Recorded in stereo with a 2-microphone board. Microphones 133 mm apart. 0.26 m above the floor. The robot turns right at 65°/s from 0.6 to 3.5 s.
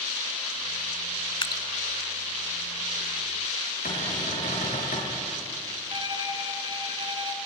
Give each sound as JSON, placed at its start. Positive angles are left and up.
{"t": 1.4, "sound": "dripping", "side_deg": 40, "distance_m": 0.8}
{"t": 3.9, "sound": "a cupboard door", "side_deg": 85, "distance_m": 7.5}
{"t": 5.9, "sound": "a violin", "side_deg": -40, "distance_m": 1.2}